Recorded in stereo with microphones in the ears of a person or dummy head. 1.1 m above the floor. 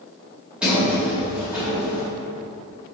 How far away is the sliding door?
About 2 m.